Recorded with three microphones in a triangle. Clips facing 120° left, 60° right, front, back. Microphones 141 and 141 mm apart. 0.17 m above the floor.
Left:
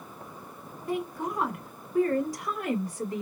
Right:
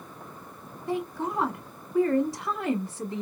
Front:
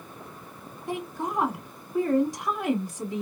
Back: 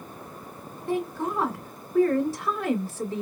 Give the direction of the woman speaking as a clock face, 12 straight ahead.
2 o'clock.